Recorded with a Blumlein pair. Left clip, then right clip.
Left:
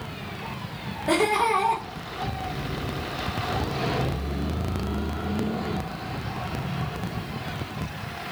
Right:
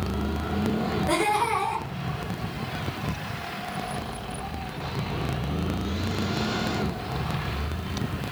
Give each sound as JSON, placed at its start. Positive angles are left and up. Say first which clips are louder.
{"t": 1.1, "sound": "laughter", "louder": "left 3 dB", "azimuth_deg": 15, "distance_m": 1.8}